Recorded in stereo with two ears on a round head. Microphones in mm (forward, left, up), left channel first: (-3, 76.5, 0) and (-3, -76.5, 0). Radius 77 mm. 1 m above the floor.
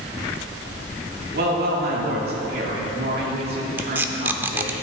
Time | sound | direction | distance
1.3 | a woman speaking | 65° right (ahead or behind) | 2 m
3.8 | tape being pulled | 10° right (ahead or behind) | 0.6 m